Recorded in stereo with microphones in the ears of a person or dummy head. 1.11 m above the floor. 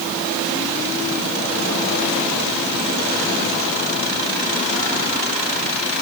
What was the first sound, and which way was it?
Only background noise.